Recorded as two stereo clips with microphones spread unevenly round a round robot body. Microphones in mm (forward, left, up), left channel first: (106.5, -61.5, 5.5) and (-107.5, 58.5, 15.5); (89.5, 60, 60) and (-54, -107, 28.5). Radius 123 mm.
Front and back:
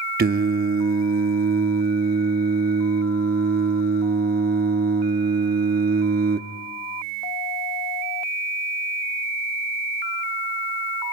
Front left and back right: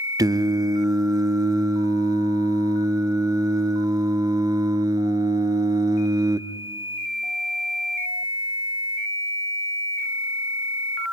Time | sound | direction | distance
0.2 | singing | 175° left | 0.8 m